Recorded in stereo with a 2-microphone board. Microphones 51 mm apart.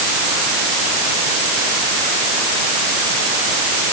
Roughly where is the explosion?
No explosion in this recording.